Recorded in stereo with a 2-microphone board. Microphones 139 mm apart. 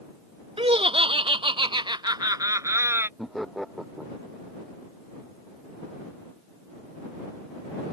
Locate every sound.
0.6 s laughter: 45° right (ahead or behind); by 3.1 s 15° right (ahead or behind)
3.2 s laughter: centre (ahead or behind)